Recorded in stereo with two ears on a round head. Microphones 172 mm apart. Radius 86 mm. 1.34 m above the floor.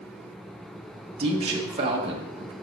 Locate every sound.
1.2 s a man speaking: 30° right (ahead or behind), 1.3 m